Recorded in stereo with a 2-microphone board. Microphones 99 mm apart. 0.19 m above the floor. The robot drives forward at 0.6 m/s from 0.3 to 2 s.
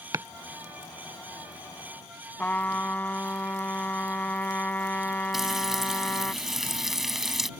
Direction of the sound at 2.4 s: 20° left (ahead or behind).